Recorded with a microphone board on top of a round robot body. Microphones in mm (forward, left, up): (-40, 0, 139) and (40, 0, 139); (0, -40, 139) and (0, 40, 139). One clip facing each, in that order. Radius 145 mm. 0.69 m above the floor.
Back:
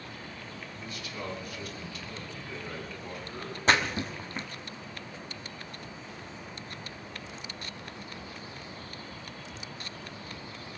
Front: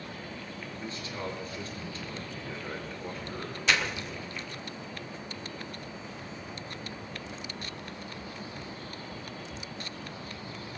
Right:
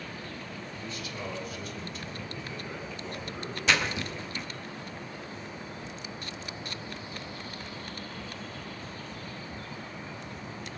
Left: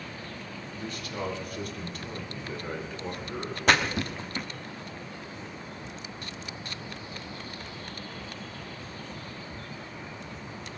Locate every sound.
0.7 s a man speaking: 60° left, 4 m
3.7 s a splash: 130° left, 1.7 m